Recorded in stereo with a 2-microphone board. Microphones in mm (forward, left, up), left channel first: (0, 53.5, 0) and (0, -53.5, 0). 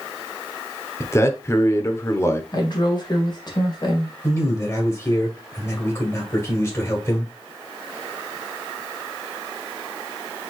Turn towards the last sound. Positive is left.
turn(degrees=25)  # may be behind; listen again after turning